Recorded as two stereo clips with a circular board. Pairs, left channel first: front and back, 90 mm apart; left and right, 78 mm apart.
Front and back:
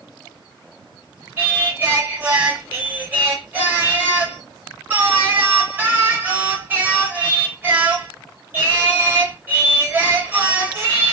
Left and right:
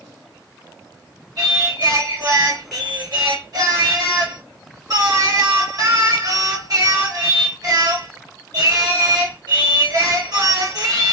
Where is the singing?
115° right, 3 m.